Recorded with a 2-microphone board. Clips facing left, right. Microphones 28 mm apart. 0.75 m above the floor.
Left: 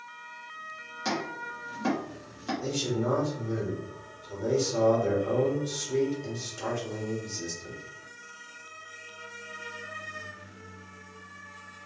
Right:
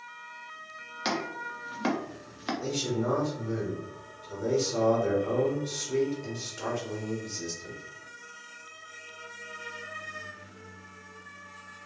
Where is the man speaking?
15° right (ahead or behind), 1.5 m.